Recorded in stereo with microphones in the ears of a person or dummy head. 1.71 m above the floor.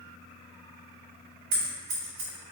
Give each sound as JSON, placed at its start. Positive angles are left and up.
{"t": 1.5, "sound": "scissors", "side_deg": -50, "distance_m": 0.6}